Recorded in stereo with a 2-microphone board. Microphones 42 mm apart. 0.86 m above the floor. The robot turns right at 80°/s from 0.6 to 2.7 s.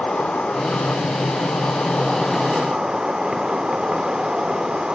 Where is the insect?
30° left, 1.5 m; by 4.9 s 160° right, 1.5 m.